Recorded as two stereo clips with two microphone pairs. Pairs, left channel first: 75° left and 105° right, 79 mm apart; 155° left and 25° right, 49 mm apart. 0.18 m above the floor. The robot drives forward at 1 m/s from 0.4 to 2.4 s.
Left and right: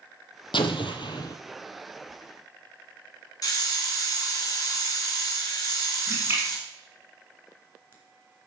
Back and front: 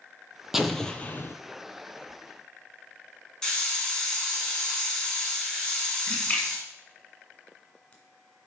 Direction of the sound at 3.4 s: 80° left.